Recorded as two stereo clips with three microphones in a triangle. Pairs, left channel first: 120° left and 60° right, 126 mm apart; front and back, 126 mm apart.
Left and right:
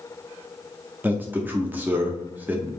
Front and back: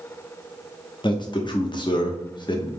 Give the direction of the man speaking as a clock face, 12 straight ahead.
12 o'clock.